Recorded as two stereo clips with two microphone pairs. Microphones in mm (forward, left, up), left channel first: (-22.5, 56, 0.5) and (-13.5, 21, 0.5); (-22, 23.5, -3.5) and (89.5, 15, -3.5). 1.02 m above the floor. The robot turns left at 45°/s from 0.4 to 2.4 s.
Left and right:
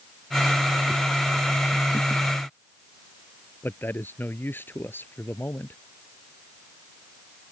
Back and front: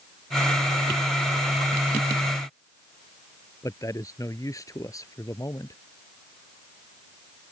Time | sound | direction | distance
3.6 | a man speaking | 115° left | ?